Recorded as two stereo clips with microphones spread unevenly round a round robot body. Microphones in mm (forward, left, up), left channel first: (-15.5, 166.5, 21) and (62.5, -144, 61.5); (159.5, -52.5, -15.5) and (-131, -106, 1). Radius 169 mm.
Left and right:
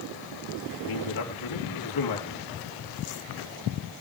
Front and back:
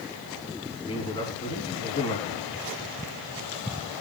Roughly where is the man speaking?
Left.